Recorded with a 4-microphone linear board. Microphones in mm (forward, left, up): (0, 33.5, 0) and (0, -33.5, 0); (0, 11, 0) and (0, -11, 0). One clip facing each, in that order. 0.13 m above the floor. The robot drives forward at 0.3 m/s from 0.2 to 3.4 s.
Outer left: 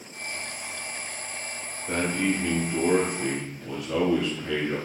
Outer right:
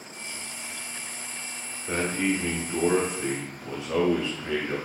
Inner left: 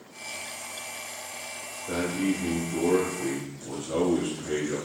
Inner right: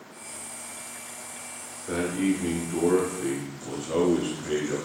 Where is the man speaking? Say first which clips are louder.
Even, inner right 2 dB; 20° right (ahead or behind), 1.3 m; by 4.8 s 25° right (ahead or behind), 1.2 m.